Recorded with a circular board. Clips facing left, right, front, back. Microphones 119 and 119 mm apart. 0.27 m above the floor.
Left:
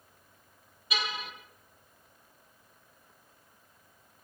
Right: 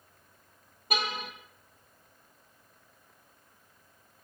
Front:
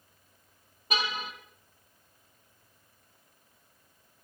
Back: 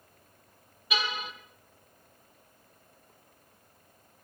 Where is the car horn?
50° right, 5 m.